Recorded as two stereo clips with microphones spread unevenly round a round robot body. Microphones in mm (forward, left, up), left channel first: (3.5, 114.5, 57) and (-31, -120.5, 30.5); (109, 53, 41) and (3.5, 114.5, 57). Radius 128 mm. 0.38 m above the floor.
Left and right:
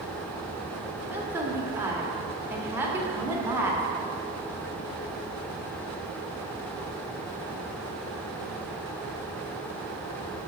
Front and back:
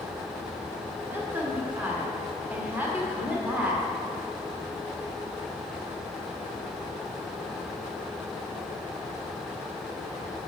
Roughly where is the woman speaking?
Behind right.